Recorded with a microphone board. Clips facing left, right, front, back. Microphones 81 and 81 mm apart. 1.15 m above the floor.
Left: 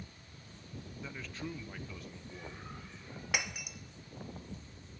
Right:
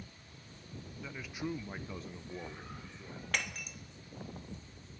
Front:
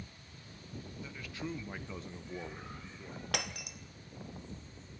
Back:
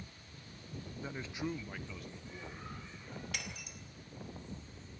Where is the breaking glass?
10° left, 1.0 m.